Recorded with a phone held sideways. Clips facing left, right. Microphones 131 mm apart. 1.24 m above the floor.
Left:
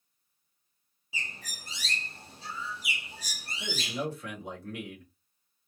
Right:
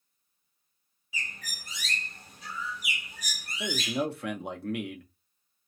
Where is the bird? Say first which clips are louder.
Right 1 dB; 30° left (ahead or behind), 0.6 m.